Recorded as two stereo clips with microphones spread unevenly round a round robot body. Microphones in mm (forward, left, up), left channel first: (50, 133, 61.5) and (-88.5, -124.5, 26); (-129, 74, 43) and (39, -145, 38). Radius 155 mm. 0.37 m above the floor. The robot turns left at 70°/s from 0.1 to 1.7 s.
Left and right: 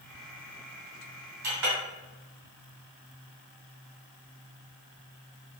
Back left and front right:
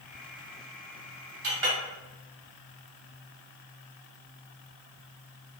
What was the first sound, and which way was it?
A clink, 75° right.